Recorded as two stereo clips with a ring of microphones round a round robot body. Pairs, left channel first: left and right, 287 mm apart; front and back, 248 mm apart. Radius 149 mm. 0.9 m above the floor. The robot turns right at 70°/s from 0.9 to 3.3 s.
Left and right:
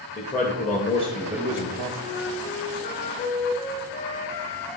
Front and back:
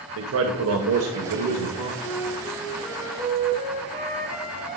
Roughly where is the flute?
Ahead left.